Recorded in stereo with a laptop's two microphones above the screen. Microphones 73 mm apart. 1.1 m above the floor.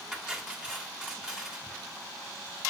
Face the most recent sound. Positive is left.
turn(degrees=-10)  # may be behind; listen again after turning